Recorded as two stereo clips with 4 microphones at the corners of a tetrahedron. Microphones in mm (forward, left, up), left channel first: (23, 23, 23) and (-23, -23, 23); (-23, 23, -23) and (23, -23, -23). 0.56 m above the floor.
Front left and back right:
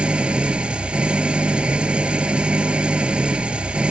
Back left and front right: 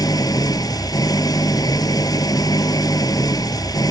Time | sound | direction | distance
0.0 | an engine running | 150° left | ?